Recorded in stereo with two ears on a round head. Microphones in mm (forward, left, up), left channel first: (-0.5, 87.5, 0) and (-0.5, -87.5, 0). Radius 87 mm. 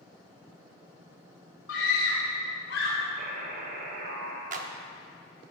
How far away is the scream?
About 3 m.